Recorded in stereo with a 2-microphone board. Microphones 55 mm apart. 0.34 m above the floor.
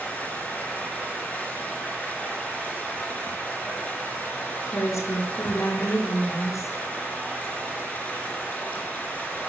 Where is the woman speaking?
70° left (ahead or behind), 4.5 m.